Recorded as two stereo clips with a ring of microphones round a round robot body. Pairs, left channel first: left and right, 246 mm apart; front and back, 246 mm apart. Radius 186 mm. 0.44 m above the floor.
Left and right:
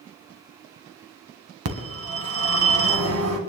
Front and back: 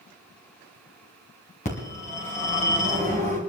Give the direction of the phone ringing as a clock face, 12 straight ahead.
2 o'clock.